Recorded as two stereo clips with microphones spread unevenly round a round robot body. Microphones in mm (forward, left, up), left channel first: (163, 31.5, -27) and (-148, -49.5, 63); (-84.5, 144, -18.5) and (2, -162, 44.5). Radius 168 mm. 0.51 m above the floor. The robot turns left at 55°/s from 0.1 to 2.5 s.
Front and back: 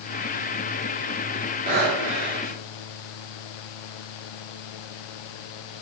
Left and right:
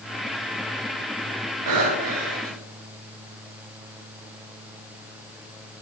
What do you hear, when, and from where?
1.7 s breathing: 95° right, 7.5 m; by 2.6 s 140° right, 7.5 m